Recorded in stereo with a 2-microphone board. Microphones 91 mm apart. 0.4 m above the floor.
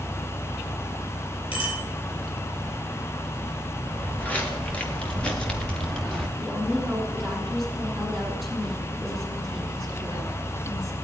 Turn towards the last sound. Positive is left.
turn(degrees=0)  # may be behind; listen again after turning